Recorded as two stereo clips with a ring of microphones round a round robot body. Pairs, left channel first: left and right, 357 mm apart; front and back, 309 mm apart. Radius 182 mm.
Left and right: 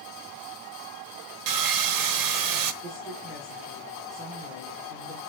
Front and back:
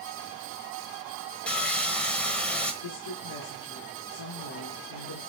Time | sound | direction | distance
1.5 | sawing | 85° right | 1.2 m
2.8 | a woman speaking | straight ahead | 5.5 m